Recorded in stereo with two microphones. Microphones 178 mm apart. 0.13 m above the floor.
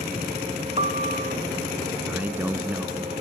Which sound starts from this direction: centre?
A man speaking, at 2.1 s.